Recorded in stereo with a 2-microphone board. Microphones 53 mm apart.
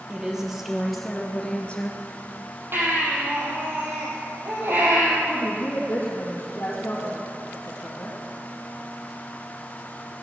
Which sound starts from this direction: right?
A baby crying, at 2.7 s.